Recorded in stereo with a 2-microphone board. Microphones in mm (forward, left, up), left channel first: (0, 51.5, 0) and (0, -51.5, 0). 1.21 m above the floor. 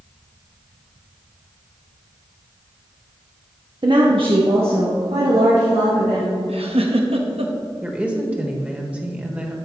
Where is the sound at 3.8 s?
50° right (ahead or behind), 0.8 m; by 6.4 s 70° right (ahead or behind), 3 m.